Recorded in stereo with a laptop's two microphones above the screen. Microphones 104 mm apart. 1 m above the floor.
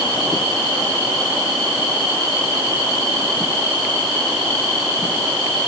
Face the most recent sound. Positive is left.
No sound to turn to.